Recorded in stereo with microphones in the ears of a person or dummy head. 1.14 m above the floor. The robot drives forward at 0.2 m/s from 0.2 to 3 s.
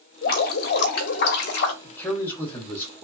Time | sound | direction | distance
0.2 | dripping | 50° left (ahead or behind) | 0.7 m
1.8 | a man speaking | 5° left (ahead or behind) | 0.9 m